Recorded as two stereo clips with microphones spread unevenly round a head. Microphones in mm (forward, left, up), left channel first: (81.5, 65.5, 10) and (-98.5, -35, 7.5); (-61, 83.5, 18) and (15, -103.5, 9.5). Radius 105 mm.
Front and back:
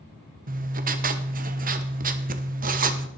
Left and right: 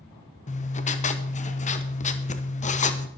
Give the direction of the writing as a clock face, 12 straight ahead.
7 o'clock.